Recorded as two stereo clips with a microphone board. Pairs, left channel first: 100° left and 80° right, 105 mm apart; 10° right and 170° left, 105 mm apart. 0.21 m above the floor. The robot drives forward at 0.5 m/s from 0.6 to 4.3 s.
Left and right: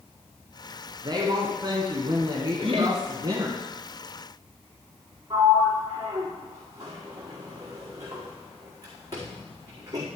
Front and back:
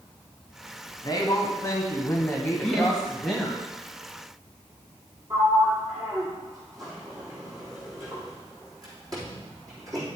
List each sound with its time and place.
1.0 s a woman speaking: 50° right, 1.9 m; by 3.6 s 105° right, 1.7 m
2.6 s laughter: 95° right, 2 m; by 3.0 s 100° right, 2 m
5.3 s a sliding door: 135° right, 4 m